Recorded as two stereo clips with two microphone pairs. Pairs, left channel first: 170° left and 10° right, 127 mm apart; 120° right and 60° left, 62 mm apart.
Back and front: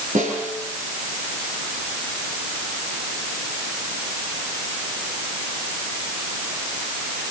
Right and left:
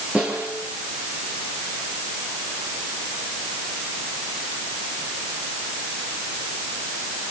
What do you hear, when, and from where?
0.1 s a snare drum: 15° right, 9.5 m